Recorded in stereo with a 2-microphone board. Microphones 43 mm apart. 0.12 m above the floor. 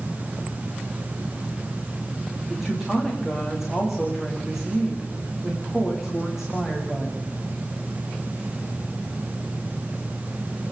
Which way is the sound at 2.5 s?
5° right (ahead or behind).